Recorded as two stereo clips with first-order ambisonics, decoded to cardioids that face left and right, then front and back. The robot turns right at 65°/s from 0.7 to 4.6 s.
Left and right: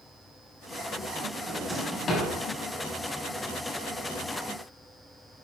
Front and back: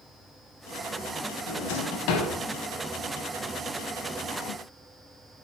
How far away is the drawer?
About 4.5 m.